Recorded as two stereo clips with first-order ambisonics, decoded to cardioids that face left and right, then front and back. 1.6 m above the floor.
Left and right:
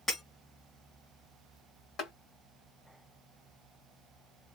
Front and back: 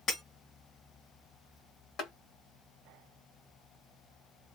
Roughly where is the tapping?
Ahead left.